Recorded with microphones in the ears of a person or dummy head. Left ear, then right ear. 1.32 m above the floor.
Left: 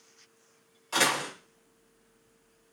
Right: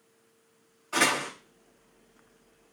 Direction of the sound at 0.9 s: 45° left (ahead or behind).